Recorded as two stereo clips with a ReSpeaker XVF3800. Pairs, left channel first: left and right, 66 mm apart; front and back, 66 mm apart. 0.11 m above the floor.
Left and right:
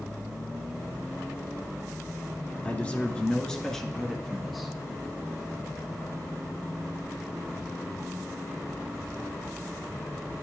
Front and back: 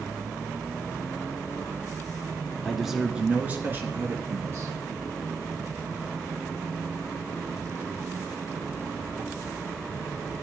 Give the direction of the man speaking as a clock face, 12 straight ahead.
9 o'clock.